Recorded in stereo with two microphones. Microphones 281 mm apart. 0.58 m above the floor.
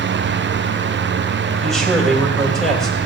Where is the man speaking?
Centre (ahead or behind), 3 m.